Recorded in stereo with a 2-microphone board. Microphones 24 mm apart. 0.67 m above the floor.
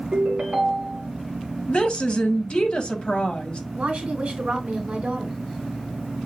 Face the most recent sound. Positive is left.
turn(degrees=-70)  # may be behind; listen again after turning